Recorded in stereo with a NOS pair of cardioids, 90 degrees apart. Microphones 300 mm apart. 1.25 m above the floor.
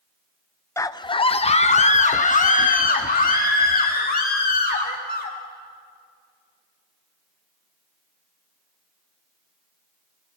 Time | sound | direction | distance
0.8 | a scream | 10° left | 0.5 m